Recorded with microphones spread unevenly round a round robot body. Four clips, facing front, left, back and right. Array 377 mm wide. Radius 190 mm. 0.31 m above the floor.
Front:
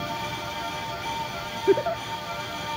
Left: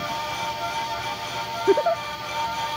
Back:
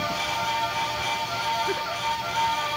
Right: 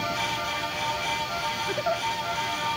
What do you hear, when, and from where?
1.7 s a giggle: 40° left